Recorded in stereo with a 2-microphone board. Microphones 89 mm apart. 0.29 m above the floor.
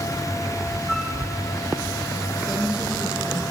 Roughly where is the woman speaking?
Centre.